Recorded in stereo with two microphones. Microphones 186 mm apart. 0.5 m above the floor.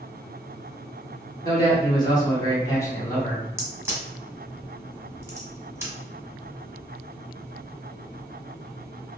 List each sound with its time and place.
1.4 s a man speaking: 20° left (ahead or behind), 0.9 m; by 3.4 s 10° left (ahead or behind), 1.2 m
3.6 s a crack: 15° right (ahead or behind), 0.9 m